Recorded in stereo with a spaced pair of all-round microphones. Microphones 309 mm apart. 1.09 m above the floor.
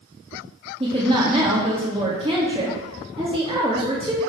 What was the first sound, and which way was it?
A woman speaking, 15° right (ahead or behind).